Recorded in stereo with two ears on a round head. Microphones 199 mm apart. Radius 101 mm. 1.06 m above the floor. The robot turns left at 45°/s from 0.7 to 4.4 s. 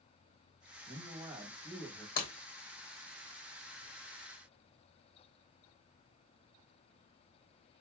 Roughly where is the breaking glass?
Left.